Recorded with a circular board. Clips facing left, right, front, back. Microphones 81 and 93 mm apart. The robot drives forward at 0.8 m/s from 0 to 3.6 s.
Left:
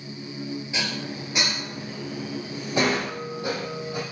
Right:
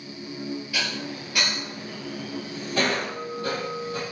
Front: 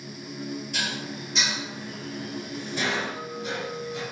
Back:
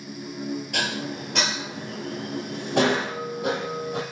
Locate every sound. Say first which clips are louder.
0.7 s dishes clattering: even, back 4 dB; 155° left, 3 m; by 4.0 s 165° left, 5.5 m